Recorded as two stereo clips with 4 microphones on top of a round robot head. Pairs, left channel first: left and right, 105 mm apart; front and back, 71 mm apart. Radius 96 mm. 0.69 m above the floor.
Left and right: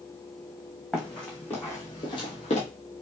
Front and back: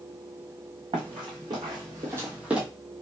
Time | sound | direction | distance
0.9 | running footsteps | 175° left | 1.8 m